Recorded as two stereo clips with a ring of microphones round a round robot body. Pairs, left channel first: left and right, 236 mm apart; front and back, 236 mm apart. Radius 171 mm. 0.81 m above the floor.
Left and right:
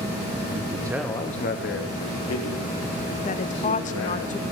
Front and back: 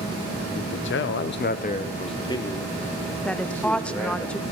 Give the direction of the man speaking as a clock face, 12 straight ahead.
1 o'clock.